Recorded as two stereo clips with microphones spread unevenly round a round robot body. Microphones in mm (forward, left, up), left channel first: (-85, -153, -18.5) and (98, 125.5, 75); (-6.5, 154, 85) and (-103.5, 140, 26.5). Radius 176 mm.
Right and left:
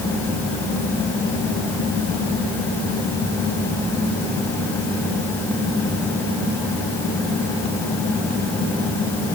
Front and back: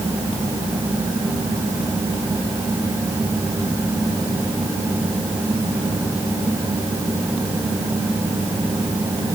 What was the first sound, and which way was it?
Only background noise.